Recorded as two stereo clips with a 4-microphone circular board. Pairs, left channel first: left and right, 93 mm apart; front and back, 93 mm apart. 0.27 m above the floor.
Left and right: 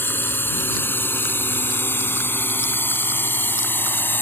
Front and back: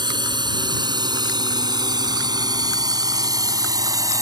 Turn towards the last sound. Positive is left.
turn(degrees=150)